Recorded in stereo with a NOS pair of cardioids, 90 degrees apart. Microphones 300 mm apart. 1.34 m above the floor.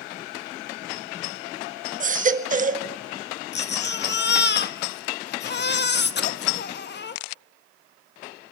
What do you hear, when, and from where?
2.0 s a baby crying: 25° right, 1.5 m
3.5 s a baby crying: 35° left, 1.3 m